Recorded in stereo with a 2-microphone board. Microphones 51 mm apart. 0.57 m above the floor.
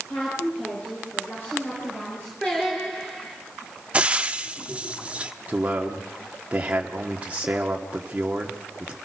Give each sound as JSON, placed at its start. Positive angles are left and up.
{"t": 0.1, "sound": "a woman speaking", "side_deg": 35, "distance_m": 8.0}
{"t": 2.4, "sound": "singing", "side_deg": 15, "distance_m": 6.0}
{"t": 3.9, "sound": "frying", "side_deg": -25, "distance_m": 0.8}
{"t": 5.5, "sound": "a man speaking", "side_deg": -25, "distance_m": 1.3}